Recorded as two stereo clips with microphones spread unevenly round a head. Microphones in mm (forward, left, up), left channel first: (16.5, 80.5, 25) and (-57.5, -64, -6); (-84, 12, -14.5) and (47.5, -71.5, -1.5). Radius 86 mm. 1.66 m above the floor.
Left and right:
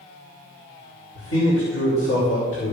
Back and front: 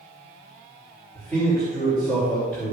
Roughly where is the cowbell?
No cowbell in this recording.